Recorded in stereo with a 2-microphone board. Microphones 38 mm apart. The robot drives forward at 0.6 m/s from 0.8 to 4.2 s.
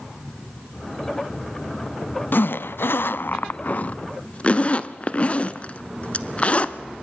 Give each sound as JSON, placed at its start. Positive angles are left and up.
{"t": 2.3, "sound": "a zipper", "side_deg": 60, "distance_m": 0.7}